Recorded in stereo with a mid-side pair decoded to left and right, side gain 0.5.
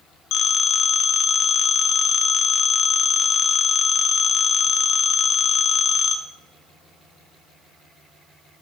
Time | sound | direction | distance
0.3 | a phone ringing | 70° left | 0.6 m